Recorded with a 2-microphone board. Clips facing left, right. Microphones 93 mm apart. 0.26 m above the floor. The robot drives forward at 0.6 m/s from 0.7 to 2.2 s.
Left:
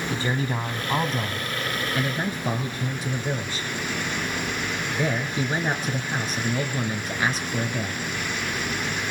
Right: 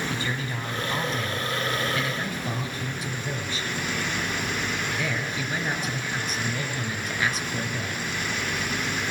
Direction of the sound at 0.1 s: 30° left (ahead or behind).